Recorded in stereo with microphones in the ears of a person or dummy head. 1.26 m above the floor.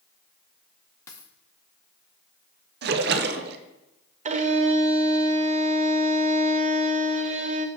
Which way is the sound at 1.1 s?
15° left (ahead or behind).